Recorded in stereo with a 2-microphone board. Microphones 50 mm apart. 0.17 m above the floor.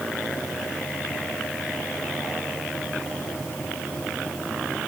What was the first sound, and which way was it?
Only background noise.